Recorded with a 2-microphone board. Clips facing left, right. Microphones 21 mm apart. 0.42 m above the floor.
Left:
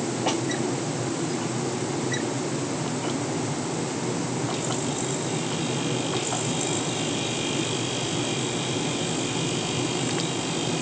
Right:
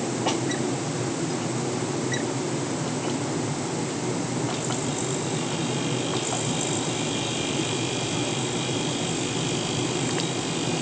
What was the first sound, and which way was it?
Only background noise.